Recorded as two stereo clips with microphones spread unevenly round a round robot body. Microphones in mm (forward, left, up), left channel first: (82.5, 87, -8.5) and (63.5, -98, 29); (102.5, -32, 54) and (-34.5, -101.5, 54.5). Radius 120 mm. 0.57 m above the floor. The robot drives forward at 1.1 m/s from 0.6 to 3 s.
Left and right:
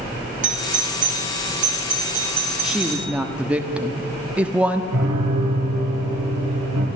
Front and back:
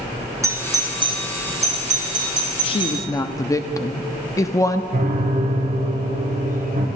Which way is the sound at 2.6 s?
5° left.